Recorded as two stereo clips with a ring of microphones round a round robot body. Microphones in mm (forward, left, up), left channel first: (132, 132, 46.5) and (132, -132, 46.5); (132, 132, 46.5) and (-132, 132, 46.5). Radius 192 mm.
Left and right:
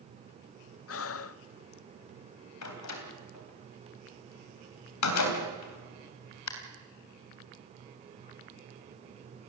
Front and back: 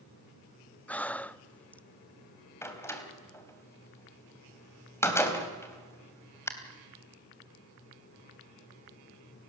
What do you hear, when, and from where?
0.9 s breathing: 85° left, 0.6 m
2.6 s a door slam: 80° left, 3.5 m